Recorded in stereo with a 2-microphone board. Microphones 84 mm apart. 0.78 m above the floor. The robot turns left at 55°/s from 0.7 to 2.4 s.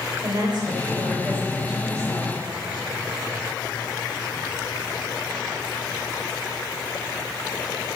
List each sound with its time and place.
0.2 s a woman speaking: 130° right, 3 m; by 2.4 s 140° left, 3 m